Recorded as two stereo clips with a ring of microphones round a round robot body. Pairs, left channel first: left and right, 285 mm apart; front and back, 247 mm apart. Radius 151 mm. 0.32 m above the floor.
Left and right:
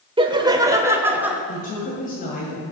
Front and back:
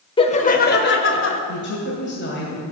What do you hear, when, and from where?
0.2 s laughter: 40° right, 0.9 m; by 1.4 s 5° right, 1.3 m
1.5 s a woman speaking: 30° left, 2 m